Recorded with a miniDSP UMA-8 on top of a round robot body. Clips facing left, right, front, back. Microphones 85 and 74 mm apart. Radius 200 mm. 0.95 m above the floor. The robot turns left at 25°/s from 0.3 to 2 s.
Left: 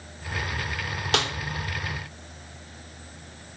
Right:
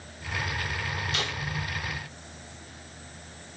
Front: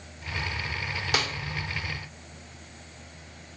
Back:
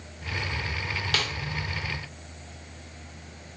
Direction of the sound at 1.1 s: 75° left.